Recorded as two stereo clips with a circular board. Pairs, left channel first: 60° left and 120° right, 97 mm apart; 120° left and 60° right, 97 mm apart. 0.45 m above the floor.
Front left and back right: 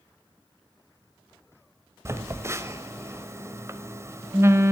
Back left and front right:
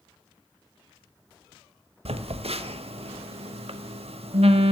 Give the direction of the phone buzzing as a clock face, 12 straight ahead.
2 o'clock.